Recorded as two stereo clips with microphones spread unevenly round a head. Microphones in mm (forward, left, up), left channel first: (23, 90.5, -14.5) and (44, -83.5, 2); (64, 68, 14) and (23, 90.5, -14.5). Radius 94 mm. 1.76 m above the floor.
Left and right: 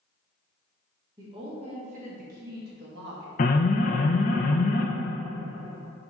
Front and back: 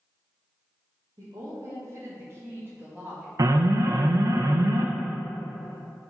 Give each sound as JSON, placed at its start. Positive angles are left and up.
{"t": 1.2, "sound": "a woman speaking", "azimuth_deg": -150, "distance_m": 1.7}
{"t": 3.4, "sound": "an alarm", "azimuth_deg": 150, "distance_m": 0.6}